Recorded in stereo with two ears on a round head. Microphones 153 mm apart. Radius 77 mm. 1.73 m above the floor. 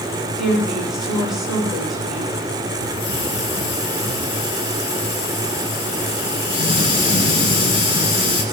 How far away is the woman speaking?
About 8 m.